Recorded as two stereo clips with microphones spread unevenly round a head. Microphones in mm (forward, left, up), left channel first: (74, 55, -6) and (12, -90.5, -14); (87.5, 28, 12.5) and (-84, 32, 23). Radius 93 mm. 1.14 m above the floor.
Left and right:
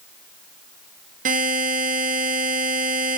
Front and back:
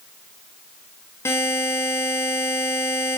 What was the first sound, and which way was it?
A buzzer, 80° right.